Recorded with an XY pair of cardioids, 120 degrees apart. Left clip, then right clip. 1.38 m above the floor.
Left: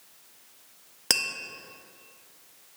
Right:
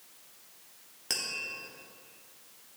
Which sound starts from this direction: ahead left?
Tapping, at 1.1 s.